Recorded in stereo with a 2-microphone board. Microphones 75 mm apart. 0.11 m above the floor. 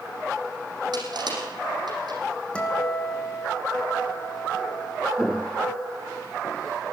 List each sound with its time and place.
0.9 s crushing: 65° right (ahead or behind), 6 m
2.5 s a guitar: 15° left (ahead or behind), 4 m
5.2 s footsteps: centre (ahead or behind), 0.6 m; by 6.8 s 50° left (ahead or behind), 1.6 m